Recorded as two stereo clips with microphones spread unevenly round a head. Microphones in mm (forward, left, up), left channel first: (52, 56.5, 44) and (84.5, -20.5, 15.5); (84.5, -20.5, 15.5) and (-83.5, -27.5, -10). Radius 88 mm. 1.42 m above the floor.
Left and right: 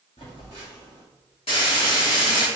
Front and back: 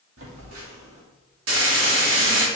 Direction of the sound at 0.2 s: 165° left.